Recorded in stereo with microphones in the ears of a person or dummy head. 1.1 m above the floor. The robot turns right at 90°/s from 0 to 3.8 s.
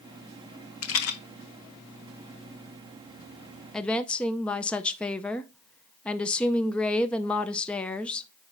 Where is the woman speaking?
Centre (ahead or behind), 0.5 m; by 8.3 s 5° left (ahead or behind), 0.5 m.